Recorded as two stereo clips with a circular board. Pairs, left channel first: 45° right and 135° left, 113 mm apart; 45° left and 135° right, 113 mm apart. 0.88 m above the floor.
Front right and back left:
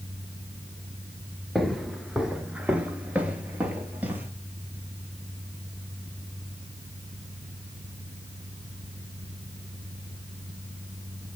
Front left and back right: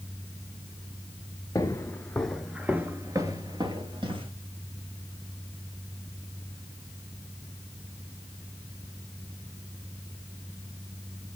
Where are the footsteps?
45° left, 0.9 m; by 4.3 s 155° right, 1.4 m.